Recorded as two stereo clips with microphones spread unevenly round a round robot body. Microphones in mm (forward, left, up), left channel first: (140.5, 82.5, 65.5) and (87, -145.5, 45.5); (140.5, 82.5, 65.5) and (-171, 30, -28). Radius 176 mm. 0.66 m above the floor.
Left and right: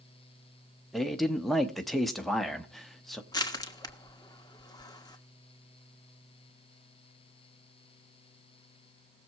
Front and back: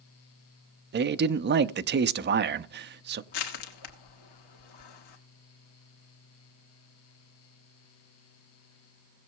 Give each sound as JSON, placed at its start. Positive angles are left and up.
{"t": 0.9, "sound": "a man speaking", "azimuth_deg": 170, "distance_m": 0.7}
{"t": 3.3, "sound": "crushing", "azimuth_deg": 0, "distance_m": 2.0}